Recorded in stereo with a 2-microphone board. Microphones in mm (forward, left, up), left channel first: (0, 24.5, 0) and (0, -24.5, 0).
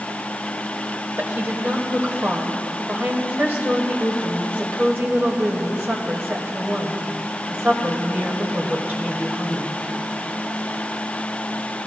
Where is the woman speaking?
45° right (ahead or behind), 1.6 m.